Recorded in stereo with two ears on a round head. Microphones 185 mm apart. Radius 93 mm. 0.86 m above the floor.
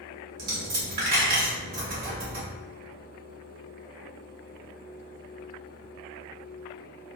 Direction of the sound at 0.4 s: 45° right (ahead or behind).